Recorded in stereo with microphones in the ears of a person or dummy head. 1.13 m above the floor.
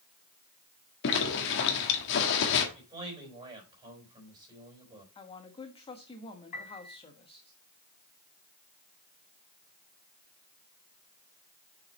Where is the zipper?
60° left (ahead or behind), 1.7 m.